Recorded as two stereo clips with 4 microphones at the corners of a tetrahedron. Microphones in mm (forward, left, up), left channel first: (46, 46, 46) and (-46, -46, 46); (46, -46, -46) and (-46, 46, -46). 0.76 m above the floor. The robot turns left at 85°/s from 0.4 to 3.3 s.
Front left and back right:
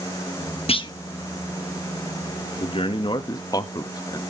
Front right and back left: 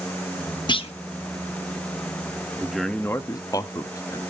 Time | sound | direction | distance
0.7 | a clunk | 5° left | 0.6 m
2.6 | a man speaking | 60° left | 1.0 m